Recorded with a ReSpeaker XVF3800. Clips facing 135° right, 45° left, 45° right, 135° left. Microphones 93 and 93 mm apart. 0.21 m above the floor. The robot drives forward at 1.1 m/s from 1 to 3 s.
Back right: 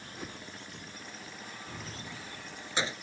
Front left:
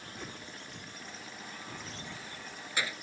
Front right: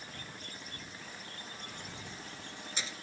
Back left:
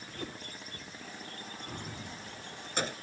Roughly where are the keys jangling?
Behind left.